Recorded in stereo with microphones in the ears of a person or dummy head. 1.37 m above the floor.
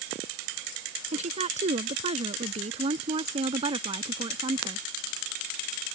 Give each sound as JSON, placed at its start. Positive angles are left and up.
{"t": 1.1, "sound": "a woman speaking", "side_deg": -45}